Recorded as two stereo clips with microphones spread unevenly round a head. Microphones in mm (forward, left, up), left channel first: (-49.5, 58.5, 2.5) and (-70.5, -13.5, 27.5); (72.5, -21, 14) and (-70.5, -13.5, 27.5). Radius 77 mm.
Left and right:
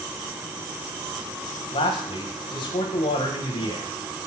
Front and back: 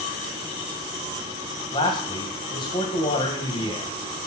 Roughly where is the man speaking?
Ahead left.